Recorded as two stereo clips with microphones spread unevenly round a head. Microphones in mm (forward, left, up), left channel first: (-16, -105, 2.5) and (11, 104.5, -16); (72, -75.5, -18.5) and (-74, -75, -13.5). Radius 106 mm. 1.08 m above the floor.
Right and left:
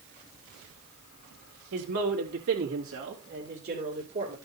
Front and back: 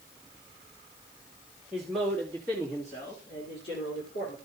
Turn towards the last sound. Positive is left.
turn(degrees=25)